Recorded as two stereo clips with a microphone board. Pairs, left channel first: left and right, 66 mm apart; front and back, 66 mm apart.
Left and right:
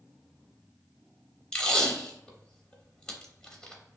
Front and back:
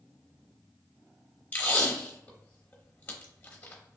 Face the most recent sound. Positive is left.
turn(degrees=30)